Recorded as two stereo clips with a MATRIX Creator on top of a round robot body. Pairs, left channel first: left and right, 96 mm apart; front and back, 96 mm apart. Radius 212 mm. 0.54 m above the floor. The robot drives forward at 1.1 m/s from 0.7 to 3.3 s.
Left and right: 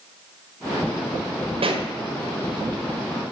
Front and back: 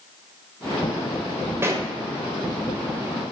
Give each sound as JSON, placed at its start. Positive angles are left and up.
{"t": 1.6, "sound": "a pop", "azimuth_deg": -115, "distance_m": 1.6}